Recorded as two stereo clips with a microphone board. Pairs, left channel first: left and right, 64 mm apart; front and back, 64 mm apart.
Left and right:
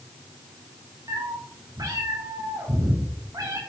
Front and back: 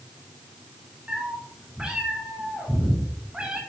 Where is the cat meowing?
105° right, 3.5 m.